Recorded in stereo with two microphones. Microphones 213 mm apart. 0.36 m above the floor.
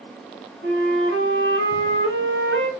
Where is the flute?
70° right (ahead or behind), 1.3 m.